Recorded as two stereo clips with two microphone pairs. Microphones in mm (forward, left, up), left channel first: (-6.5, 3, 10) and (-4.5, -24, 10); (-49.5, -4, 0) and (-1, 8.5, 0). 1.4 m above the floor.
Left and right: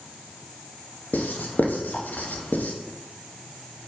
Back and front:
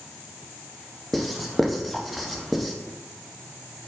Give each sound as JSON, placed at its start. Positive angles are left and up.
{"t": 1.1, "sound": "writing", "azimuth_deg": 105, "distance_m": 0.6}